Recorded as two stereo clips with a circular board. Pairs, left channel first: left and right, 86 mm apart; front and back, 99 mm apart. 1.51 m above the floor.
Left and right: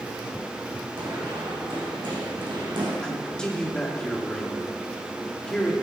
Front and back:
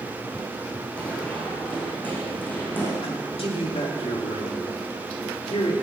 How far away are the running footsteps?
About 6 m.